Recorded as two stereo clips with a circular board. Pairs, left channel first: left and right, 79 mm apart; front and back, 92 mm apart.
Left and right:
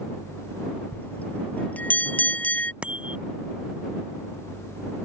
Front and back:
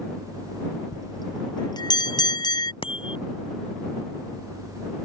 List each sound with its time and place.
0.9 s a bell: 25° left
2.8 s a bicycle bell: 15° right